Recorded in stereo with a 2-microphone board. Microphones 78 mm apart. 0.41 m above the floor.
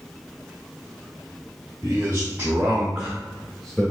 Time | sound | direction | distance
1.8 | a man speaking | 35° right (ahead or behind) | 1.3 m